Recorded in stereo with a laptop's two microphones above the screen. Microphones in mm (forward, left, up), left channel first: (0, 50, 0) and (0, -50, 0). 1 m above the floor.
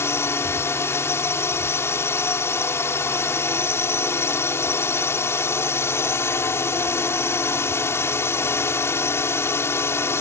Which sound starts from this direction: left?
A drone, at 0.0 s.